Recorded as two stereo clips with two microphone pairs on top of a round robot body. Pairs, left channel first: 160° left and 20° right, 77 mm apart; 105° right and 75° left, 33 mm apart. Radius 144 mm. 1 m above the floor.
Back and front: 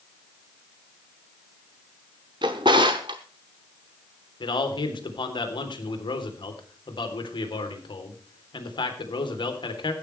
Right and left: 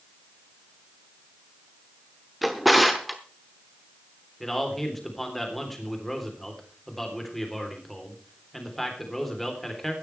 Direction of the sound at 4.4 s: 170° left.